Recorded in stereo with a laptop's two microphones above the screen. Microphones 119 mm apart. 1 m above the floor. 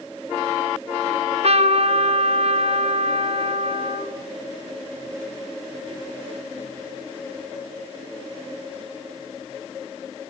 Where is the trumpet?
60° right (ahead or behind), 3.5 m.